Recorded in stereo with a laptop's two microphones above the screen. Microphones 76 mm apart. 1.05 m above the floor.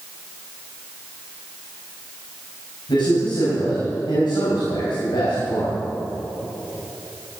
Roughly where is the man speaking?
Left.